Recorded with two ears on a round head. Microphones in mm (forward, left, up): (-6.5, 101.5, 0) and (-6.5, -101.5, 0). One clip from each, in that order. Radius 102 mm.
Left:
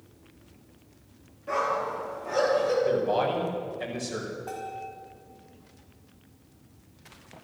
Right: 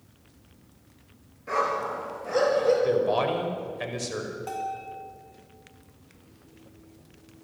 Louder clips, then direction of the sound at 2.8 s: Right 1 dB; 65° right (ahead or behind).